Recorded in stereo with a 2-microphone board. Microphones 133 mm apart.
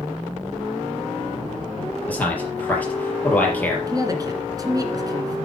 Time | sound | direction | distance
2.1 | a man speaking | 10° left (ahead or behind) | 4.5 m
3.9 | a man speaking | 25° right (ahead or behind) | 2 m